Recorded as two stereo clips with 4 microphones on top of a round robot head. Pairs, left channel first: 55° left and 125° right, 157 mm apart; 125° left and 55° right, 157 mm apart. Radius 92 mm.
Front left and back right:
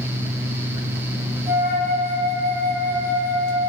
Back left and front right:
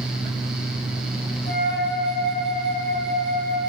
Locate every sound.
1.5 s a flute: 165° left, 2.5 m